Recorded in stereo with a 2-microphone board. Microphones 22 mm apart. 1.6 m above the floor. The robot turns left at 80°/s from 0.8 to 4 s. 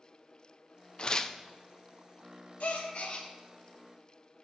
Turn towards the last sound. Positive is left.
turn(degrees=-25)